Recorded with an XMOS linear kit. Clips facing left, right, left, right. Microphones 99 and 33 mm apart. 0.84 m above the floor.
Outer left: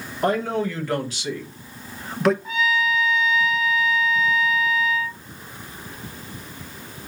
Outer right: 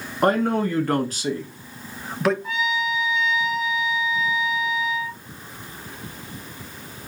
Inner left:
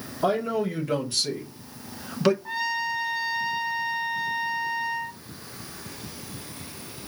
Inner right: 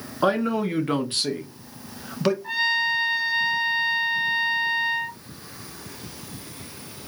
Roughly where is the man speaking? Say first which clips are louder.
Outer right 2 dB, inner right 2 dB; right.